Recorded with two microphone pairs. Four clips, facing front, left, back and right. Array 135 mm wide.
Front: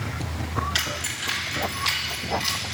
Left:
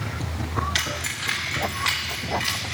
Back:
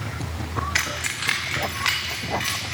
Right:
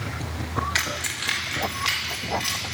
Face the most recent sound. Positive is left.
turn(degrees=145)